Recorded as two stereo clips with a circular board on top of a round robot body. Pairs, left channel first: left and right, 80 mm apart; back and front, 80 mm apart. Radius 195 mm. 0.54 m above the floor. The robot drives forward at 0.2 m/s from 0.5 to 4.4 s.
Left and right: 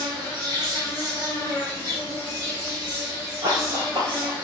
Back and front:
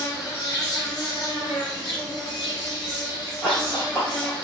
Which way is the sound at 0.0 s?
130° right.